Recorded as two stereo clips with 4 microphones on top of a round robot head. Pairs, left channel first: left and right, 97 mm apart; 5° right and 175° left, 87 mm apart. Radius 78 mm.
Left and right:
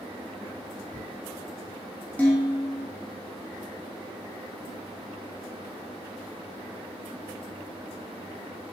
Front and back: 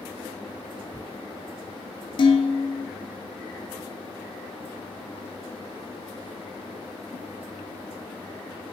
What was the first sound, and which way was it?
Dishes clattering, 15° left.